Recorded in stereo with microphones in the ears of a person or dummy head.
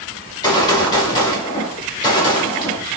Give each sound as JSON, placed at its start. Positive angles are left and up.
{"t": 0.2, "sound": "a gunshot", "side_deg": 20, "distance_m": 1.0}